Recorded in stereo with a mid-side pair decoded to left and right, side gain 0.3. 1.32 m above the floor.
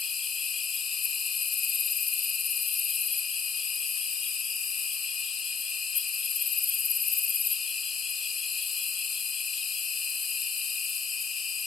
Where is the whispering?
I don't hear whispering.